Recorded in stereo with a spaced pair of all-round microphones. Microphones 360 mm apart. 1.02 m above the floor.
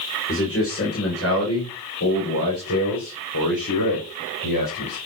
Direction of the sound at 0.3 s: 35° left (ahead or behind).